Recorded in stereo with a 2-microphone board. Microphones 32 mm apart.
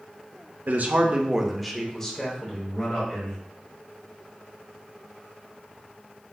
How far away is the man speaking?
About 0.6 m.